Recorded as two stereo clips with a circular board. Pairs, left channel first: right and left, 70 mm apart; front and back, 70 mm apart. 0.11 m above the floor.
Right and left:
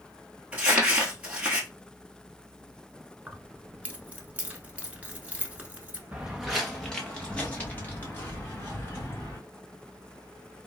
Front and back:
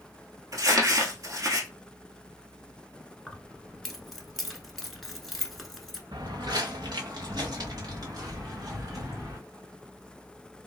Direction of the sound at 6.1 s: 165° left.